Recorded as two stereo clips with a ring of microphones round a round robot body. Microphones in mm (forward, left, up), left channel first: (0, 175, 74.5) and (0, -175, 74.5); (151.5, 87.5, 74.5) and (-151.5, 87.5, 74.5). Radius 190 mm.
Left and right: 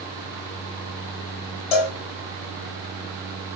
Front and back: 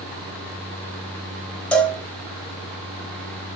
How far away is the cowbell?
About 0.7 m.